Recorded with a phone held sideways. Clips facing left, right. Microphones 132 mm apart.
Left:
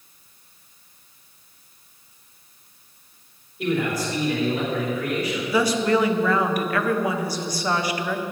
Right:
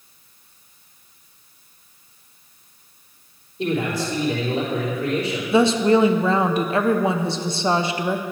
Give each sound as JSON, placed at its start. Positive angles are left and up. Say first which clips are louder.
{"t": 3.6, "sound": "a man speaking", "louder": "right 1 dB", "side_deg": -25, "distance_m": 3.0}
{"t": 5.5, "sound": "a woman speaking", "louder": "right 5 dB", "side_deg": -25, "distance_m": 0.6}